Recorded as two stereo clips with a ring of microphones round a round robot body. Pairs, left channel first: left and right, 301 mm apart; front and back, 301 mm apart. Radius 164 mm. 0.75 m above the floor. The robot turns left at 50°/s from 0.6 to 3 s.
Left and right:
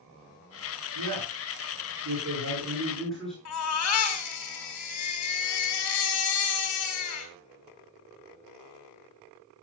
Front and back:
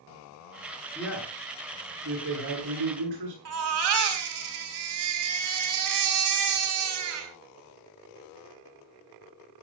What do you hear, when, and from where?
0.9 s a man speaking: 80° right, 9.5 m; by 3.4 s straight behind, 9.5 m
3.5 s a baby crying: 140° left, 3.5 m